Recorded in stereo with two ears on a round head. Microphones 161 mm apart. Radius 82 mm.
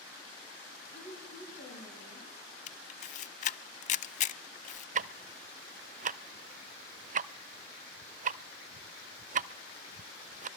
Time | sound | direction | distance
0.9 | a woman speaking | 35° left (ahead or behind) | 8 m
2.7 | a camera shutter | 45° left (ahead or behind) | 0.6 m
5.0 | ticking | 45° right (ahead or behind) | 0.6 m